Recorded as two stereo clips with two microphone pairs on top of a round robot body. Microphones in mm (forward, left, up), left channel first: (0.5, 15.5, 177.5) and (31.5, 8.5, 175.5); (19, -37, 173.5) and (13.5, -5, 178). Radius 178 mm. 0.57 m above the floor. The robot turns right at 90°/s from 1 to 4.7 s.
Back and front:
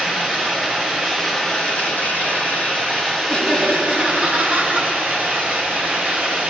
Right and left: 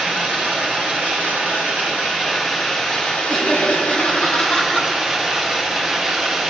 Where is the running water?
50° left, 3 m; by 6.5 s 25° left, 3 m.